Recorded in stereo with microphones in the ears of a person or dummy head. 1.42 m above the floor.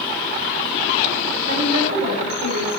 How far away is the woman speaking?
About 5.5 m.